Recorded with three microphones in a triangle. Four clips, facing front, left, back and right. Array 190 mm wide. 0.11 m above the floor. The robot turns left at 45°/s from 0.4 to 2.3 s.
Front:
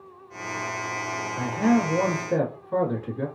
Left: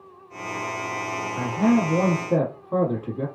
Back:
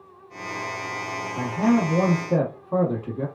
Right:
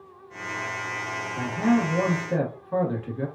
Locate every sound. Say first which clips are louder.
1.4 s a man speaking: left 2 dB, back 1 dB; 175° right, 1.2 m; by 3.3 s 140° left, 1.2 m